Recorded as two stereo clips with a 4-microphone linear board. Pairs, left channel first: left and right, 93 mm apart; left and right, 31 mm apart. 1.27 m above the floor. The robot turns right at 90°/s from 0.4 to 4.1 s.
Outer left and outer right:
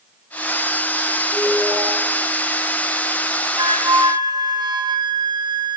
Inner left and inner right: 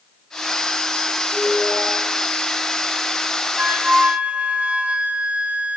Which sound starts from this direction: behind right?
A flute, at 3.6 s.